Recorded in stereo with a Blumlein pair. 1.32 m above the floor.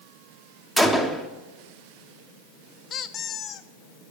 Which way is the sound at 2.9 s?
25° left.